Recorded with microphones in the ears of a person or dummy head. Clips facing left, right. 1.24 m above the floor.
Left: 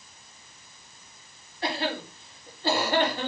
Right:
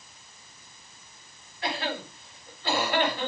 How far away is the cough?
About 4.5 m.